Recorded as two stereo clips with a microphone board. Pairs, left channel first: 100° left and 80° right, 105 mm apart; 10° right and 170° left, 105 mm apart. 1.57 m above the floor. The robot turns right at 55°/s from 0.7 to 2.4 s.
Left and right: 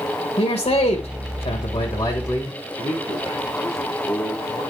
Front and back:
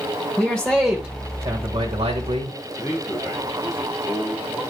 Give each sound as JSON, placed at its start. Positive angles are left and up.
{"t": 0.4, "sound": "a man speaking", "azimuth_deg": 75, "distance_m": 1.8}
{"t": 2.8, "sound": "a man speaking", "azimuth_deg": 70, "distance_m": 7.5}